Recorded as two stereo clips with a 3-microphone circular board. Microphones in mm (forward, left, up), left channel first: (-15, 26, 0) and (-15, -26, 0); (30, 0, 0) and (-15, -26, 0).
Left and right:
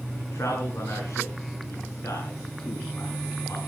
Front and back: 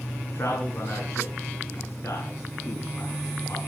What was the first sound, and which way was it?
A man speaking, 65° left.